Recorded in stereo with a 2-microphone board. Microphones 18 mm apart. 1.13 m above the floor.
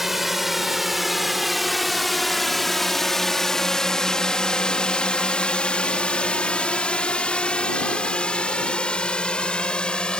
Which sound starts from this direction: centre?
A drone, at 0.0 s.